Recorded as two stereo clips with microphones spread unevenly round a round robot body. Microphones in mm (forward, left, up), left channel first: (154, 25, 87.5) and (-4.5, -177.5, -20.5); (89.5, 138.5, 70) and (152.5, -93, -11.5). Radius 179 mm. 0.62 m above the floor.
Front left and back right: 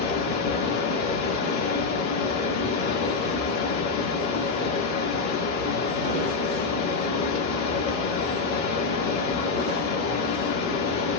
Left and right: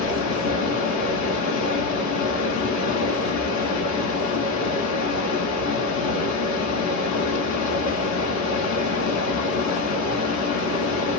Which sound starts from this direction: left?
Running water, at 0.0 s.